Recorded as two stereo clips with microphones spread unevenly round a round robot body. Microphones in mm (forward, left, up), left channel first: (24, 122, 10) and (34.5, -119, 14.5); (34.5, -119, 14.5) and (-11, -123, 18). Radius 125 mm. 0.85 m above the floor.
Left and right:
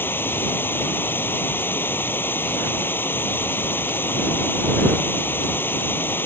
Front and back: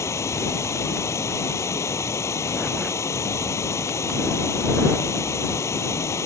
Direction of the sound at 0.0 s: 10° left.